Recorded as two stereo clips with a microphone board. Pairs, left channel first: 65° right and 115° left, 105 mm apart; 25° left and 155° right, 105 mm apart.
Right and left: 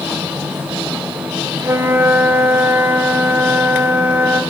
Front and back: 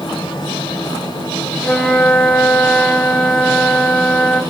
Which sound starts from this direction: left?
A flute, at 1.6 s.